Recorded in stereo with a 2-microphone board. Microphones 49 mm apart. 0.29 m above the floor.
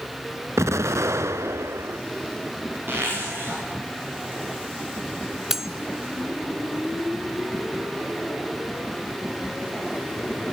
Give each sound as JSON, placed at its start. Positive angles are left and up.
{"t": 0.6, "sound": "an explosion", "side_deg": -85, "distance_m": 0.7}
{"t": 2.9, "sound": "a zipper", "side_deg": -50, "distance_m": 8.0}
{"t": 5.5, "sound": "cutlery clinking", "side_deg": -10, "distance_m": 0.8}